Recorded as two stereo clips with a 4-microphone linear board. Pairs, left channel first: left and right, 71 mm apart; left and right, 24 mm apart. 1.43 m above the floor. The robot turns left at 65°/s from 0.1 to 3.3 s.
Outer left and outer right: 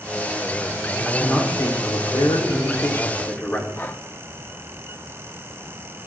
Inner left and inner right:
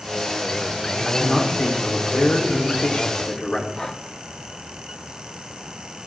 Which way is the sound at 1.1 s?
160° left.